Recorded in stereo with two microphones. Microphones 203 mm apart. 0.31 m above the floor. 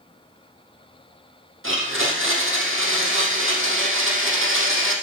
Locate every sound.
1.6 s a blender: 70° right (ahead or behind), 3 m